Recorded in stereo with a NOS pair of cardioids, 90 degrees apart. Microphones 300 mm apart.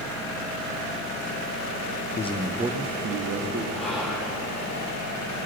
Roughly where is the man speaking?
Ahead left.